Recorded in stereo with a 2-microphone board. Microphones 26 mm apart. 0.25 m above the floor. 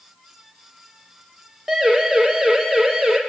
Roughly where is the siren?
Centre.